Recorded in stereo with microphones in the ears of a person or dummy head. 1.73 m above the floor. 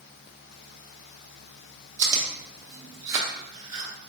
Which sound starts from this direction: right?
Chewing, at 2.0 s.